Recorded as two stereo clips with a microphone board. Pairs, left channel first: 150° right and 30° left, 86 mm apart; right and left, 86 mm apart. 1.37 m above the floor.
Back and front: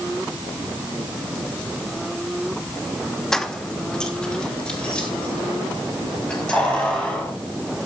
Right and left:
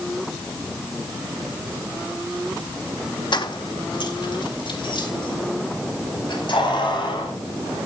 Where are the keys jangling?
65° right, 1.4 m; by 7.3 s 70° right, 7.5 m.